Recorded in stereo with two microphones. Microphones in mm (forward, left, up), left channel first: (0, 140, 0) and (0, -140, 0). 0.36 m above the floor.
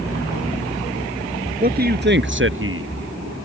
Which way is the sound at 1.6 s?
30° right (ahead or behind).